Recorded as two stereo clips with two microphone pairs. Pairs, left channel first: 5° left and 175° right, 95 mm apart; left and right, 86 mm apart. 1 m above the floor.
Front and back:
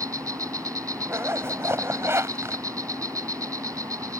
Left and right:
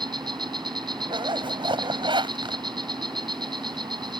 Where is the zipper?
110° right.